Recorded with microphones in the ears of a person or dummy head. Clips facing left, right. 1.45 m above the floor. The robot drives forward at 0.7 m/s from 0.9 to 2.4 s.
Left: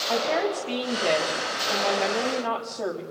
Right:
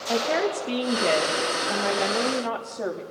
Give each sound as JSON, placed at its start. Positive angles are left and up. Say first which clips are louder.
{"t": 0.1, "sound": "a woman speaking", "louder": "right 1 dB", "side_deg": -25, "distance_m": 1.9}